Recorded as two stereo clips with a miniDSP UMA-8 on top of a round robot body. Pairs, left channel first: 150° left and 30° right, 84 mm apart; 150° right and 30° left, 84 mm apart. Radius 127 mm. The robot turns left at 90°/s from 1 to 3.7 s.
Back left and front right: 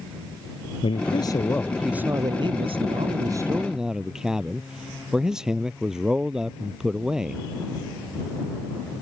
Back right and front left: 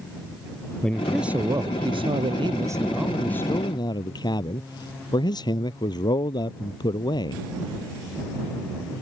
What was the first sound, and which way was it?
A man speaking, 130° left.